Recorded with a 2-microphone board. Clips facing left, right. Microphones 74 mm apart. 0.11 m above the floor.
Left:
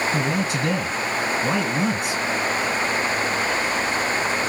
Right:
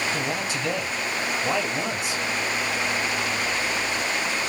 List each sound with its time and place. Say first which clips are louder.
0.1 s a man speaking: left 4 dB; 55° left (ahead or behind), 2.5 m